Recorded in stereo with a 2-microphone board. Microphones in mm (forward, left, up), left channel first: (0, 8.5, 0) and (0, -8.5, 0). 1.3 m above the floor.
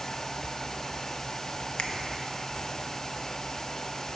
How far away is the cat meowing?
I don't hear a cat meowing.